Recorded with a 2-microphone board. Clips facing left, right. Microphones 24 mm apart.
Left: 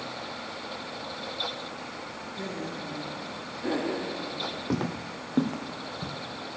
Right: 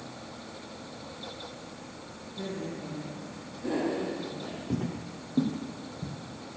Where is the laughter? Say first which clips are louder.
Even; 40° left (ahead or behind), 3 m; by 4.6 s 55° left (ahead or behind), 3.5 m.